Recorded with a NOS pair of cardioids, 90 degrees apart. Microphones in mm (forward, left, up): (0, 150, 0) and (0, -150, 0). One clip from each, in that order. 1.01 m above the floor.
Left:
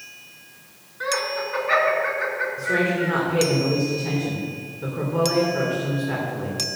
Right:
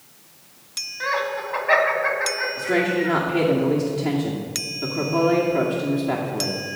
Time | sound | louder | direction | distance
1.0 | laughter | even | 35° right | 3 m
2.6 | a woman speaking | right 1 dB | 55° right | 2.5 m